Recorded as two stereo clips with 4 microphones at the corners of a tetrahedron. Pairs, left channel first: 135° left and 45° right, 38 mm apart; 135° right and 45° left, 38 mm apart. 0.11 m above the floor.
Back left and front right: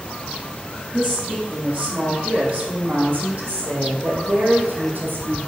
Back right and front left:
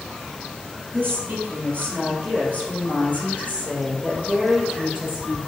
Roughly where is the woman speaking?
Ahead left.